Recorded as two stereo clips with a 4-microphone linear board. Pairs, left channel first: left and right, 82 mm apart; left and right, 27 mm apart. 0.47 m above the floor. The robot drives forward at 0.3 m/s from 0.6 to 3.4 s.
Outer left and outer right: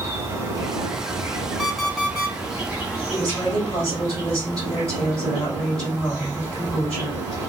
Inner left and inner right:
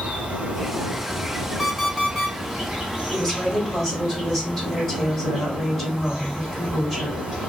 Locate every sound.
0.0 s an insect: 40° right (ahead or behind), 0.9 m; by 7.5 s 20° right (ahead or behind), 1.6 m
1.6 s an alarm clock: centre (ahead or behind), 1.1 m
3.1 s a woman speaking: 10° left (ahead or behind), 2.5 m; by 7.2 s 5° left (ahead or behind), 2.5 m